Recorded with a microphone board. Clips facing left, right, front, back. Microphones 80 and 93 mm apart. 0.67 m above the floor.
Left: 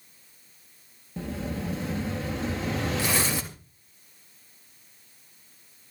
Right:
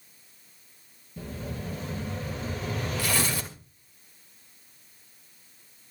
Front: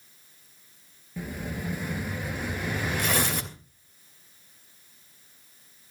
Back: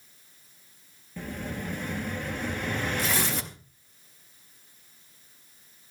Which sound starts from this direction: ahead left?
Tearing paper, at 3.0 s.